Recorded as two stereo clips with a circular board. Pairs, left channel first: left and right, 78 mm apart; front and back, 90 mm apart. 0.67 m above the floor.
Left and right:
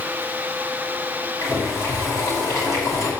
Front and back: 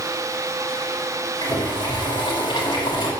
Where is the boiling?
40° left, 3.5 m.